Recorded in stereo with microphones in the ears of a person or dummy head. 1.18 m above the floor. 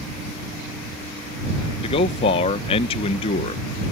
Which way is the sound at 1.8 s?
30° left (ahead or behind).